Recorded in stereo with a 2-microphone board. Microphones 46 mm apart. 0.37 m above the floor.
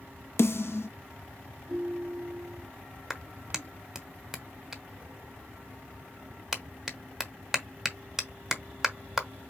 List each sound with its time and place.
0.4 s a snare drum: 70° left (ahead or behind), 0.9 m
1.7 s a ringtone: 65° right (ahead or behind), 2 m
3.1 s a clap: 10° right (ahead or behind), 1.1 m